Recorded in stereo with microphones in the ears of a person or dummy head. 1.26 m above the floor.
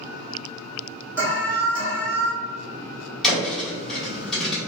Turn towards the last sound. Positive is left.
turn(degrees=5)  # may be behind; listen again after turning